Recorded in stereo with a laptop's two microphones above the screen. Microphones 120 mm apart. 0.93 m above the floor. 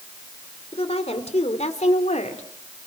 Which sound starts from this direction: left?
A woman speaking, at 0.7 s.